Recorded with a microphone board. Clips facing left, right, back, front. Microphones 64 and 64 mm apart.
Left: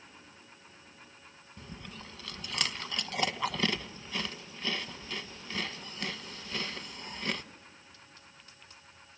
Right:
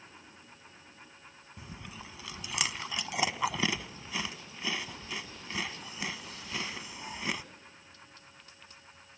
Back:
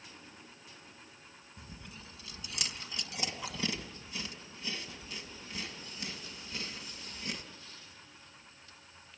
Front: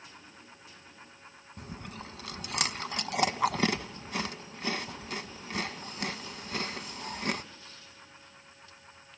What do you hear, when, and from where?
1.6 s chewing: 10° right, 1.1 m